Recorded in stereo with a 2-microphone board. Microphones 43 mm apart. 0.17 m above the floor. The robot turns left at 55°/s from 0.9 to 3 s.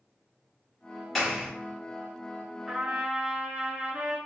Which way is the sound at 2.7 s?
20° right (ahead or behind).